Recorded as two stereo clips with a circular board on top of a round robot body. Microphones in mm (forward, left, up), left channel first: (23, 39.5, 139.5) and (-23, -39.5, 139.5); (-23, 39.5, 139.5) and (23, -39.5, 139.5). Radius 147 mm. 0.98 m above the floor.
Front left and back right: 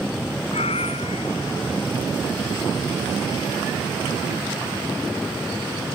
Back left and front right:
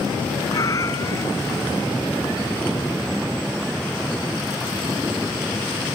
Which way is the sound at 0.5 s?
65° left.